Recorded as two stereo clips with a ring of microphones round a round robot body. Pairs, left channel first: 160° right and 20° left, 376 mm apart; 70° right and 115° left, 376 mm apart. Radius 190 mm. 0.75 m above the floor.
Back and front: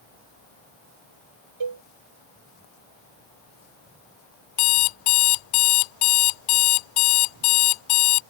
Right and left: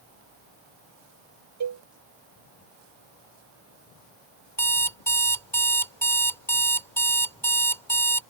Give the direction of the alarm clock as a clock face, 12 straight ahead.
5 o'clock.